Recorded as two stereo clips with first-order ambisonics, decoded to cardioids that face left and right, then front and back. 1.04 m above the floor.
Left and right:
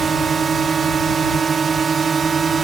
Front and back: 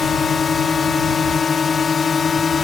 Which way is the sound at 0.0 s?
50° right.